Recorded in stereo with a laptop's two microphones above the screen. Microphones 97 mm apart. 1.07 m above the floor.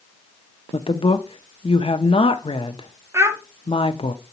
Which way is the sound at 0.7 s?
75° left (ahead or behind).